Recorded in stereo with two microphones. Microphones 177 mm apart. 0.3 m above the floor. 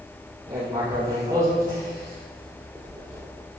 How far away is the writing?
About 5.5 m.